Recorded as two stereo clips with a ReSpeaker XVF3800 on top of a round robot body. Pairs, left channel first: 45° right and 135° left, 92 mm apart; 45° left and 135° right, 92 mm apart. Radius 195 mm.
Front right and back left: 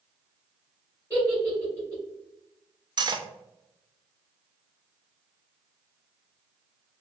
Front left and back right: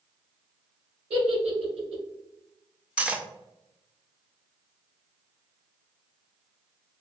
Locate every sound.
1.1 s a giggle: 120° right, 1.9 m
3.0 s cutlery clinking: 150° left, 0.6 m